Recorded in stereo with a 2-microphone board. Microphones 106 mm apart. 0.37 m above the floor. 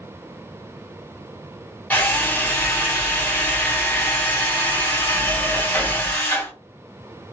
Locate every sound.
1.9 s a drill: 15° left (ahead or behind), 3 m